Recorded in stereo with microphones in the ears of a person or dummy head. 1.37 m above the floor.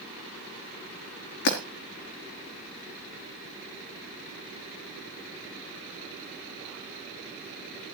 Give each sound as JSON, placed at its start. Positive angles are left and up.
{"t": 1.4, "sound": "breaking glass", "side_deg": 70, "distance_m": 4.0}